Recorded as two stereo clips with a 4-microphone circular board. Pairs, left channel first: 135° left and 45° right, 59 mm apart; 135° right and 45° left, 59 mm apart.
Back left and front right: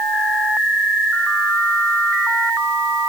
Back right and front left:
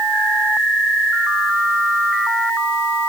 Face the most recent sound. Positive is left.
No sound to turn to.